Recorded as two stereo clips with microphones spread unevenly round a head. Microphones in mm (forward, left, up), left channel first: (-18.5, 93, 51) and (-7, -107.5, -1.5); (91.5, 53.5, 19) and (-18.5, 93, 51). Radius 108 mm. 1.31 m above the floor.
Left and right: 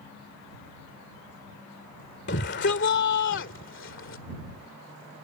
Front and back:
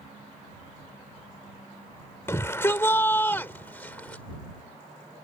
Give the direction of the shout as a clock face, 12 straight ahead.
10 o'clock.